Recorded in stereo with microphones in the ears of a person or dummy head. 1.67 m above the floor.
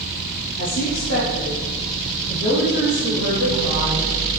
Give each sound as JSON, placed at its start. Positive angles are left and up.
{"t": 0.6, "sound": "a woman speaking", "side_deg": 65, "distance_m": 3.5}